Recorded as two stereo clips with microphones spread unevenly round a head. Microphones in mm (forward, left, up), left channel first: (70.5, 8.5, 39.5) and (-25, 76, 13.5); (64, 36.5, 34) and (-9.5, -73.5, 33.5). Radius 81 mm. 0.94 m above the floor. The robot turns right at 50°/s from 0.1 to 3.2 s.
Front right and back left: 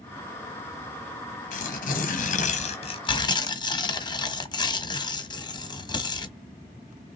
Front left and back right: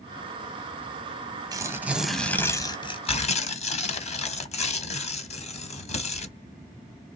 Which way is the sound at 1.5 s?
65° right.